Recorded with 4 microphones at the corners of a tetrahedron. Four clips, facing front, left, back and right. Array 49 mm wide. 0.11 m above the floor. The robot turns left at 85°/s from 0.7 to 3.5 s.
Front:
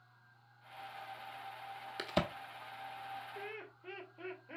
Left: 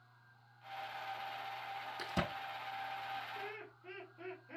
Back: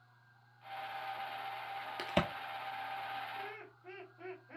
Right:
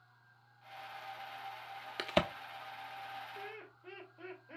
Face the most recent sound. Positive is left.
turn(degrees=-5)